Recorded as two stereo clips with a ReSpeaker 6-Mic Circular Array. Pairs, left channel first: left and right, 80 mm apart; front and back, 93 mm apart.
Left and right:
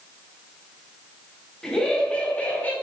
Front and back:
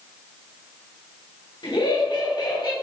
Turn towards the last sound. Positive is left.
turn(degrees=25)